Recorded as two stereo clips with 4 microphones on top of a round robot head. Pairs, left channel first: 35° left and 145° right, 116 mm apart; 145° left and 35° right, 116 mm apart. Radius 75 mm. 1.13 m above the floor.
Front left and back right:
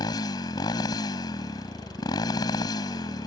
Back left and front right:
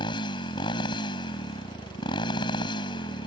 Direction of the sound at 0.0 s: 95° left.